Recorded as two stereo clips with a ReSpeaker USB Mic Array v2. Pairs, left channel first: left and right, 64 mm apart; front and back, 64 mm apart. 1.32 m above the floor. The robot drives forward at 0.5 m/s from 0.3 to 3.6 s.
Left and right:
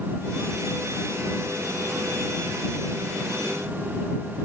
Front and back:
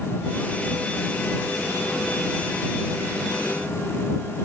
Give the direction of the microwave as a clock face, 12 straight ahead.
I don't hear a microwave.